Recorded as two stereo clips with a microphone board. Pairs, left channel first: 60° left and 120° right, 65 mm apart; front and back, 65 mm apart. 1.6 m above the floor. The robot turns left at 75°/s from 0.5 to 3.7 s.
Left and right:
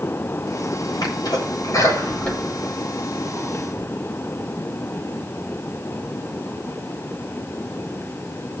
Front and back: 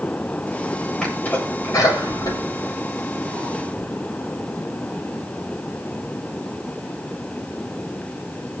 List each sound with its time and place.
1.0 s a sneeze: 80° left, 8.5 m; by 3.8 s 120° right, 8.5 m